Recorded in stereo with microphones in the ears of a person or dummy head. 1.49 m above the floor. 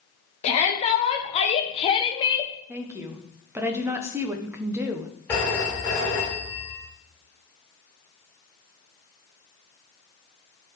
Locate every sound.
0.4 s a shout: 35° left (ahead or behind), 2 m; by 2.5 s 25° left (ahead or behind), 0.7 m
2.7 s a woman speaking: 10° right (ahead or behind), 1.0 m
5.3 s a phone ringing: 15° left (ahead or behind), 4 m